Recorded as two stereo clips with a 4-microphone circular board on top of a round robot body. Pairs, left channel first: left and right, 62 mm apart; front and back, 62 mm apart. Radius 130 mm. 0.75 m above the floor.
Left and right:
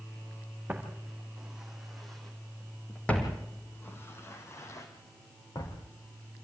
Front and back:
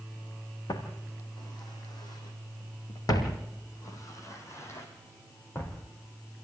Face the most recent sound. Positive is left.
turn(degrees=60)